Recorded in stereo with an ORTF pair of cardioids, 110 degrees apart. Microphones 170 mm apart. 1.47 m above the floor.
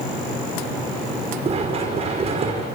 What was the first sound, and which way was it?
Running footsteps, 35° right.